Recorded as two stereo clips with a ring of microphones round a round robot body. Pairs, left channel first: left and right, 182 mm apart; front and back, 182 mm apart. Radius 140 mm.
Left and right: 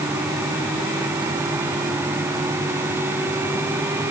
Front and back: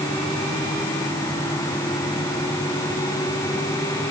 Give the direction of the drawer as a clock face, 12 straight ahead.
No drawer in this recording.